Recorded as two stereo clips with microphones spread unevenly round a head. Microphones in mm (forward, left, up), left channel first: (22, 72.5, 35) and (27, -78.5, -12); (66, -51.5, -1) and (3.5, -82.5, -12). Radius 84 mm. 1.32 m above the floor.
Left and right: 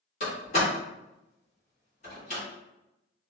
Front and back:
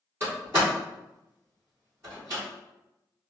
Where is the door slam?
130° left, 1.4 m.